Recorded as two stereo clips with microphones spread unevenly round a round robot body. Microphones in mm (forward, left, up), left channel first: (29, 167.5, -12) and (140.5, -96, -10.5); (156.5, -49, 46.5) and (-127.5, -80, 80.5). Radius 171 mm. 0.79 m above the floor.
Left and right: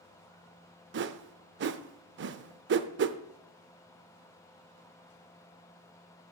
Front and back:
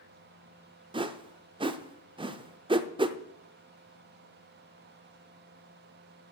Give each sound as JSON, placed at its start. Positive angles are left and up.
{"t": 0.9, "sound": "a whoosh", "azimuth_deg": -110, "distance_m": 0.5}